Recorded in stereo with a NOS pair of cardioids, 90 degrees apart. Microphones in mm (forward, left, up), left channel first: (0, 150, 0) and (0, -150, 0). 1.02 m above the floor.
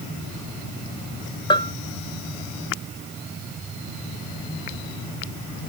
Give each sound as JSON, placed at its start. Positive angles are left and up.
{"t": 1.5, "sound": "a bell", "azimuth_deg": 15}